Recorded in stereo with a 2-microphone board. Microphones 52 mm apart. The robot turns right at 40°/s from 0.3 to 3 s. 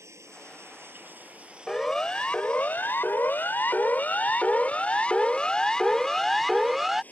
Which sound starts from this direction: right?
Running water, at 0.0 s.